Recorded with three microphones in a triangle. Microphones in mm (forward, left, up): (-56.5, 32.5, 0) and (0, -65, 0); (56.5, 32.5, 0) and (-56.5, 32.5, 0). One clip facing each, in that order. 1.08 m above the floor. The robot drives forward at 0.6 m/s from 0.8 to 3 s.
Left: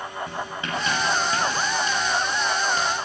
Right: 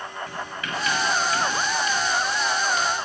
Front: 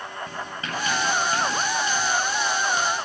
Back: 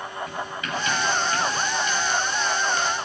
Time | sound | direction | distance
0.3 | writing | 55° left | 6 m